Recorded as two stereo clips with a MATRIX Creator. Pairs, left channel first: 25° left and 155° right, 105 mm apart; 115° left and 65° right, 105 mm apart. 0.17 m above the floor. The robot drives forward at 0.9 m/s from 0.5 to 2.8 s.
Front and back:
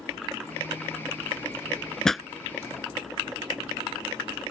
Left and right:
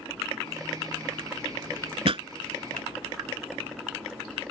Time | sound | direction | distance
2.0 | a pop | 60° right | ?